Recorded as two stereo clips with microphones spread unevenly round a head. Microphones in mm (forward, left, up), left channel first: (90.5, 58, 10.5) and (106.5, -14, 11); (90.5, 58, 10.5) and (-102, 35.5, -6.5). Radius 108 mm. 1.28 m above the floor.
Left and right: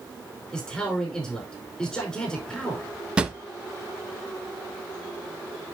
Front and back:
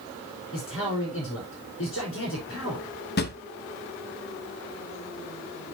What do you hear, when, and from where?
0.5 s a man speaking: 25° left, 5 m
3.2 s a drawer: 5° right, 0.7 m